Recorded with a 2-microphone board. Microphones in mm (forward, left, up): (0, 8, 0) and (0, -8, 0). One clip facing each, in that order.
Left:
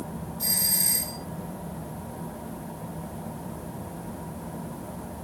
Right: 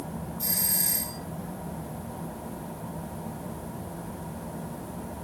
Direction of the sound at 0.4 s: 25° left (ahead or behind).